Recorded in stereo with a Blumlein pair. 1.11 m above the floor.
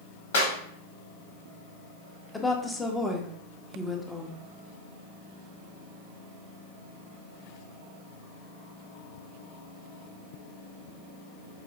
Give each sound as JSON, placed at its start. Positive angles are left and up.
{"t": 0.3, "sound": "a clap", "azimuth_deg": 60, "distance_m": 1.2}
{"t": 2.3, "sound": "a woman speaking", "azimuth_deg": 10, "distance_m": 0.8}